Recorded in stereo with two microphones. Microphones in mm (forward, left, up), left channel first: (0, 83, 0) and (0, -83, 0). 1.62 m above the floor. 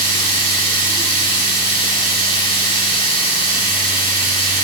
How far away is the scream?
I don't hear a scream.